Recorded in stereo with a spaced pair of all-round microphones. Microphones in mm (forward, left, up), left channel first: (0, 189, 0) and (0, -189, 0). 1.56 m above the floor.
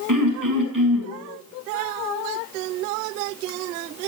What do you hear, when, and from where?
0.1 s throat clearing: 60° right (ahead or behind), 6.5 m